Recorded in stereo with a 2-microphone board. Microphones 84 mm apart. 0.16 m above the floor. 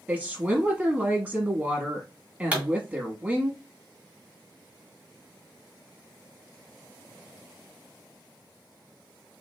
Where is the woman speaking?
15° right (ahead or behind), 1.0 m.